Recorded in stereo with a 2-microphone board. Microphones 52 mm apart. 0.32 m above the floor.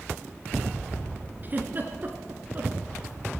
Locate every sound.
1.4 s a giggle: 35° right (ahead or behind), 1.8 m